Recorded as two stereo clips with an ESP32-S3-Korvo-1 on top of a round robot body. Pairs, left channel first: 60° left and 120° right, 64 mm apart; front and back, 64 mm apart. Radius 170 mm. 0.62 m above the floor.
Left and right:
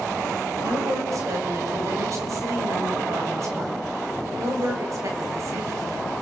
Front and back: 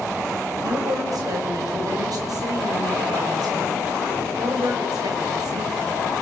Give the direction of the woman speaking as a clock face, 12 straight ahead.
5 o'clock.